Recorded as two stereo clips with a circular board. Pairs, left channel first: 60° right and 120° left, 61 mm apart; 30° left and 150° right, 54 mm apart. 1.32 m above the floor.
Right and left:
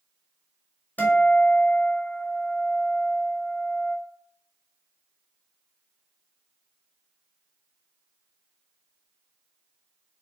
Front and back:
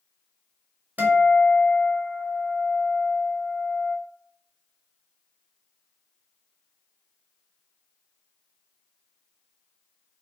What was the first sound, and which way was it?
A guitar, 105° right.